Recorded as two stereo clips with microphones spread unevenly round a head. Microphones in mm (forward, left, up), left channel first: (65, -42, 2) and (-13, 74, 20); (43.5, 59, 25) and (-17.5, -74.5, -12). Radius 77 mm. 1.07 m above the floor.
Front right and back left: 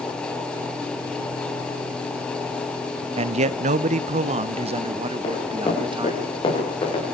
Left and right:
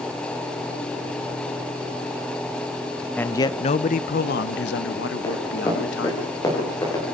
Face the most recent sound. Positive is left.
turn(degrees=0)